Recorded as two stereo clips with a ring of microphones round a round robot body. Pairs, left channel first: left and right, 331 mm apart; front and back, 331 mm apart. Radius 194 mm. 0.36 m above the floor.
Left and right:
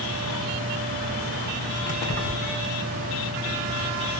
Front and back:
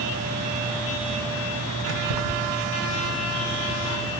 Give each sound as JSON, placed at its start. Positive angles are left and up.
{"t": 1.9, "sound": "keys jangling", "azimuth_deg": 165, "distance_m": 2.5}